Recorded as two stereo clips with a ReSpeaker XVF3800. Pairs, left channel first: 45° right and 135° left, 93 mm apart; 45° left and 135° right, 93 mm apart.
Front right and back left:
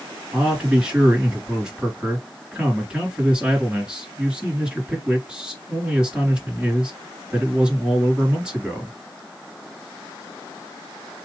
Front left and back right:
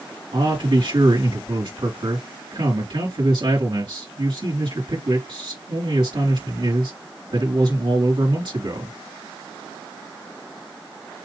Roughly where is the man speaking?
Behind right.